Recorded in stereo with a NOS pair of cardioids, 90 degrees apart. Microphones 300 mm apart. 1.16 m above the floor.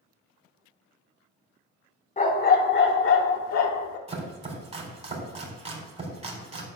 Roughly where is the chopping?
Ahead.